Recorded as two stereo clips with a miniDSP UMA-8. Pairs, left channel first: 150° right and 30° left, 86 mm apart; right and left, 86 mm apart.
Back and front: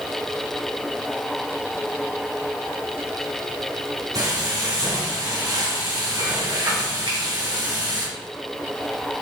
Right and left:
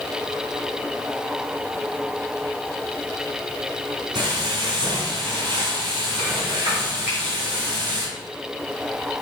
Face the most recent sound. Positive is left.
turn(degrees=35)